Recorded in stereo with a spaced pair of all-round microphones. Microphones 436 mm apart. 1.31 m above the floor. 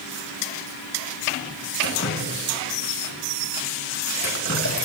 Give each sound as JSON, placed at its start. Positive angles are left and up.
{"t": 1.8, "sound": "dripping", "side_deg": 35, "distance_m": 3.5}